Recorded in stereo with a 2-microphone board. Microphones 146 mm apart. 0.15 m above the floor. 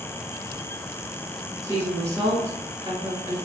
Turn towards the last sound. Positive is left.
turn(degrees=-25)  # may be behind; listen again after turning